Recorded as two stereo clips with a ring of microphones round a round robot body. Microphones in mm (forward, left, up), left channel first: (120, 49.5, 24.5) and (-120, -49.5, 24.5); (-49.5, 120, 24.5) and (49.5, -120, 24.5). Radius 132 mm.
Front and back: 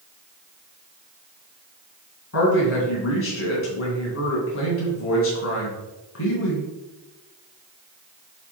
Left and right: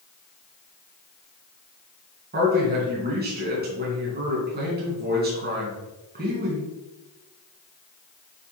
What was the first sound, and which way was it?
A man speaking, 15° right.